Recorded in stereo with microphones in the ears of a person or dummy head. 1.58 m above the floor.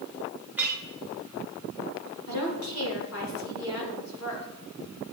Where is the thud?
No thud in this recording.